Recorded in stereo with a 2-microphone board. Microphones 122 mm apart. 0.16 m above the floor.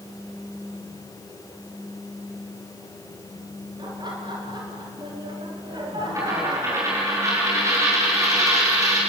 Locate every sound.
3.8 s laughter: 40° right (ahead or behind), 4 m
6.2 s a dropped coin: 25° right (ahead or behind), 7 m